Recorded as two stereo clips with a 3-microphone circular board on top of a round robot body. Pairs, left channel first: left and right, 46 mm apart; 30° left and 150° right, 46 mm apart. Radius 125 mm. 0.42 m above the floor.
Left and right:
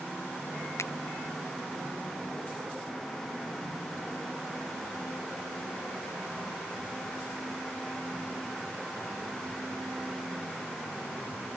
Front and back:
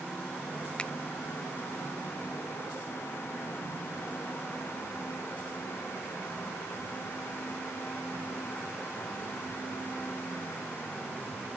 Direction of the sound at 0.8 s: 95° left.